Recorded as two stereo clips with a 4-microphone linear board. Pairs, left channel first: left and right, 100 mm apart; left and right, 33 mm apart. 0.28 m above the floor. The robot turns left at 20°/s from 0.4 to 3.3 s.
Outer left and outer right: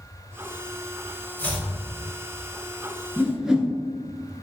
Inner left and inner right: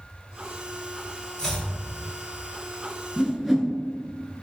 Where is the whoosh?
5° right (ahead or behind), 0.5 m; by 3.7 s 10° right (ahead or behind), 0.5 m.